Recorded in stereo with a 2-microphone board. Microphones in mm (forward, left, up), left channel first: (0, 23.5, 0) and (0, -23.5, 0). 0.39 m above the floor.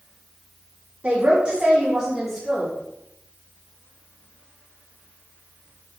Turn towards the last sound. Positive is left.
turn(degrees=0)  # may be behind; listen again after turning